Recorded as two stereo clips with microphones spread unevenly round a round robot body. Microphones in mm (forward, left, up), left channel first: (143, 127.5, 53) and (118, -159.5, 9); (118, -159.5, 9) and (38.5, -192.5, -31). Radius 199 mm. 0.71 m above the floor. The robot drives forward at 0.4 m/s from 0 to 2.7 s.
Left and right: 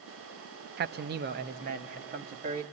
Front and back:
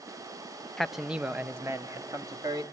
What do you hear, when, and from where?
0.8 s a man speaking: 95° right, 0.5 m; by 2.6 s 155° right, 0.9 m